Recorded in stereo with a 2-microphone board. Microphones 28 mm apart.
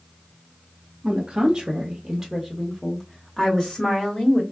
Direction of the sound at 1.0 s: 30° right (ahead or behind).